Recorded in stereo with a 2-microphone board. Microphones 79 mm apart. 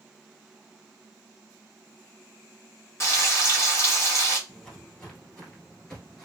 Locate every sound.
3.0 s frying: 35° left (ahead or behind), 0.9 m
4.5 s footsteps: 10° left (ahead or behind), 1.5 m; by 6.2 s 5° left (ahead or behind), 1.1 m